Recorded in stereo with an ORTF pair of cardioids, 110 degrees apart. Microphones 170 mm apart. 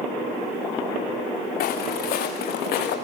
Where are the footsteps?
65° left, 7 m; by 3.0 s 75° left, 7 m.